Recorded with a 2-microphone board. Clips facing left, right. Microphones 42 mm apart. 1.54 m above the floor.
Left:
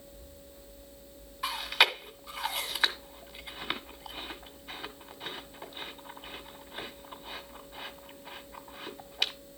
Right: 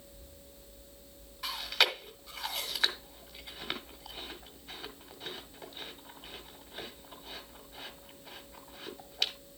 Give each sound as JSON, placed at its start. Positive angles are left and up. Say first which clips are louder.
{"t": 1.4, "sound": "chewing", "louder": "left 4 dB", "side_deg": 10, "distance_m": 1.4}